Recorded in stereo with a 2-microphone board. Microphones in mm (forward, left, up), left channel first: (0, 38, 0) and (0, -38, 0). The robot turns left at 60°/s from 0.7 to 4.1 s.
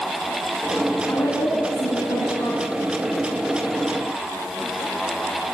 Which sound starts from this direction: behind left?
A woman speaking, at 1.1 s.